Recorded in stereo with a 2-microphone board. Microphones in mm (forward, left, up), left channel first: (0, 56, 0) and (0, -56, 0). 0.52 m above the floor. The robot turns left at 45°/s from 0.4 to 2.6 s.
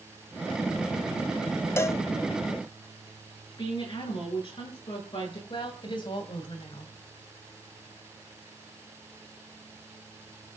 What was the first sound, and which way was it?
A cowbell, 20° left (ahead or behind).